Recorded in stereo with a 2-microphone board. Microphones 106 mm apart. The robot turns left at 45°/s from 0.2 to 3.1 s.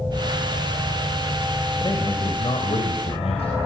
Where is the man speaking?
140° left, 3.5 m; by 3.6 s 85° left, 3.5 m.